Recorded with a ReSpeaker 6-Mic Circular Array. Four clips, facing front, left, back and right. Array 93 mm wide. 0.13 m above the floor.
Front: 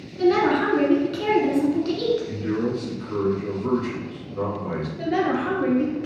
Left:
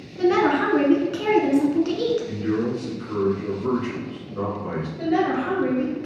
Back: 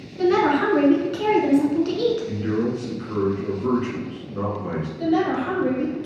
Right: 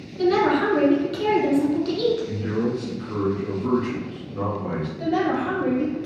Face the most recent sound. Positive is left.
turn(degrees=35)